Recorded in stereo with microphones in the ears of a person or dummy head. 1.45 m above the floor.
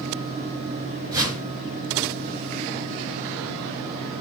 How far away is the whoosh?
About 1.9 m.